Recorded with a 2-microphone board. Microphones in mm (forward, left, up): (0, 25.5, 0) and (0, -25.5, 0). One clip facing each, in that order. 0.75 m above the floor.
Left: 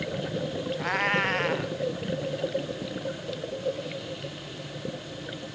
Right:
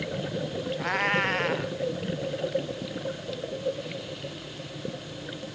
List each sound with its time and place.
0.8 s a cat meowing: centre (ahead or behind)